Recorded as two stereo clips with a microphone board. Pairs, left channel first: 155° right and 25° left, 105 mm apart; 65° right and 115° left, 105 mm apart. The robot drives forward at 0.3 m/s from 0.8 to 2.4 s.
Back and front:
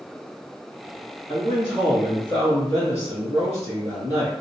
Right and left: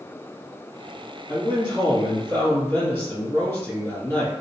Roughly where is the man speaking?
Right.